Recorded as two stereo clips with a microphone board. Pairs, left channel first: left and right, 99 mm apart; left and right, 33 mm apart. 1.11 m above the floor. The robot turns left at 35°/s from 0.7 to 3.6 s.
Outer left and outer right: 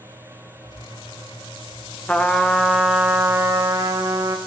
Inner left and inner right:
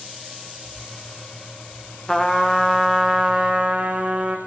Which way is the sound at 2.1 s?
20° left.